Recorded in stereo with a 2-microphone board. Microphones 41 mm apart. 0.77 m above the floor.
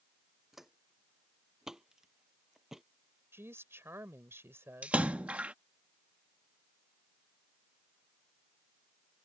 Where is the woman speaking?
80° right.